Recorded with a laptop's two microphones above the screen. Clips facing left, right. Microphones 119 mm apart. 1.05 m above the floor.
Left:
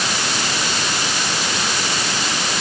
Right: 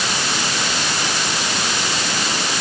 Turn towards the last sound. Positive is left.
No sound to turn to.